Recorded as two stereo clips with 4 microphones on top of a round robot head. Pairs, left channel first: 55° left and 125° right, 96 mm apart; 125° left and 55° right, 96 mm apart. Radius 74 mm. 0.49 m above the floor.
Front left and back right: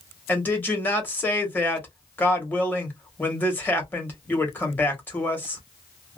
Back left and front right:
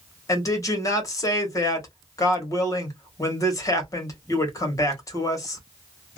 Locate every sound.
0.3 s a woman speaking: 110° left, 1.3 m